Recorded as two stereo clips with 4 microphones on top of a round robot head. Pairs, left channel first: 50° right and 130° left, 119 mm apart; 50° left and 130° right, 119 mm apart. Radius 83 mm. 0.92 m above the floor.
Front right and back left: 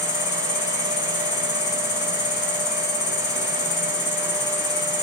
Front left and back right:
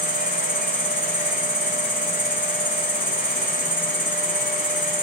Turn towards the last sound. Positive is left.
turn(degrees=-25)